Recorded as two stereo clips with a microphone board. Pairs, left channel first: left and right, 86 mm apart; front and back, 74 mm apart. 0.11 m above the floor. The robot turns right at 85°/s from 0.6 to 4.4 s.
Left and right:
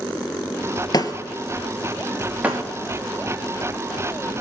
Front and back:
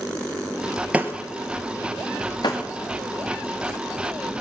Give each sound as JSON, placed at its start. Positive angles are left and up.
{"t": 0.9, "sound": "breaking glass", "azimuth_deg": 110, "distance_m": 1.5}
{"t": 2.4, "sound": "breaking glass", "azimuth_deg": -20, "distance_m": 3.0}